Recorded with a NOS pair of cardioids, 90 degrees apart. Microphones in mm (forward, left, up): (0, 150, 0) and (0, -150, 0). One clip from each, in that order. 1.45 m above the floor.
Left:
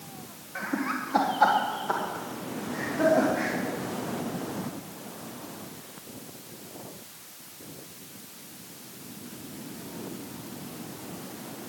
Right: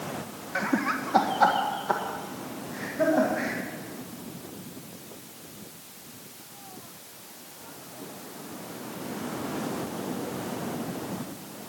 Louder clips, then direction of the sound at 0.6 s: Right 3 dB; 40° right.